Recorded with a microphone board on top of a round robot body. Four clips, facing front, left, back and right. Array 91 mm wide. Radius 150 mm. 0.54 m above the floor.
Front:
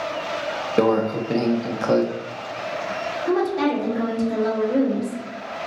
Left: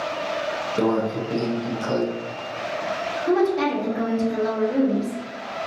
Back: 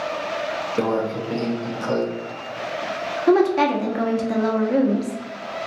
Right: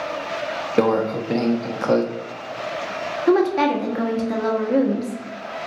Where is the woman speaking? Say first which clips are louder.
Right 3 dB, back 5 dB; 140° right, 1.0 m.